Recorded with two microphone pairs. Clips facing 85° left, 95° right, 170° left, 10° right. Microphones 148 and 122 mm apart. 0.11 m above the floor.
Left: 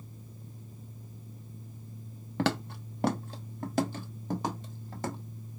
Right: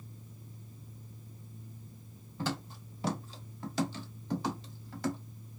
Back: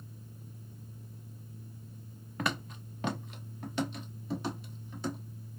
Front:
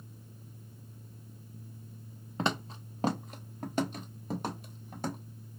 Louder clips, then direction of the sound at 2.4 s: Left 7 dB, front 3 dB; 60° left.